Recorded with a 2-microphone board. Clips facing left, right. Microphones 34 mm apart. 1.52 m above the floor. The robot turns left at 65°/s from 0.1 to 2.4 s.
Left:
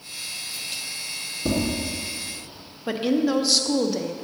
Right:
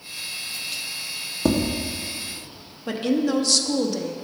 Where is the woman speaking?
10° left (ahead or behind), 0.6 m.